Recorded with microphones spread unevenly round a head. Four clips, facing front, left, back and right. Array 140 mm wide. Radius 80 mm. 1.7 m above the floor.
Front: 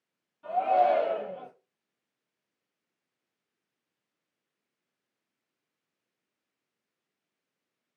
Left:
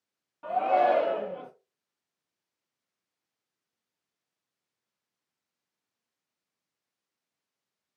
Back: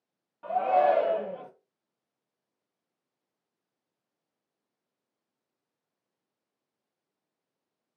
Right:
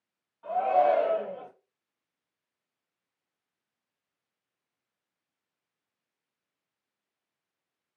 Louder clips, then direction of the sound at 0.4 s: Even, even; 125° left.